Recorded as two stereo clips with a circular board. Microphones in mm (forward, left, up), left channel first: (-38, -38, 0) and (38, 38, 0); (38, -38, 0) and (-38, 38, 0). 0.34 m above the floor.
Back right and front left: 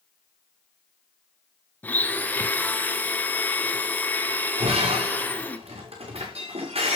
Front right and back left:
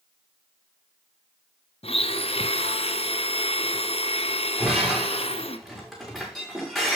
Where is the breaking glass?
45° left, 6 m.